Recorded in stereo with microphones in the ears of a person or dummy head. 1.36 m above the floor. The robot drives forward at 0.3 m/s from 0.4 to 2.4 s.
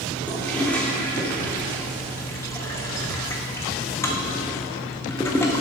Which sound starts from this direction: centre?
A toilet flushing, at 0.3 s.